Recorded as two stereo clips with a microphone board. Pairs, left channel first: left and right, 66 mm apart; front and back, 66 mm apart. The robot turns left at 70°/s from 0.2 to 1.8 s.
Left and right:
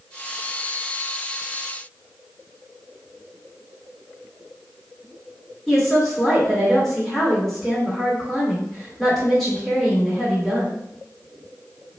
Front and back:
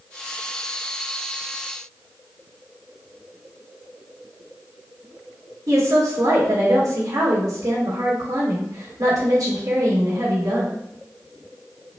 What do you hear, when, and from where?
5.7 s a woman speaking: 175° left, 2.0 m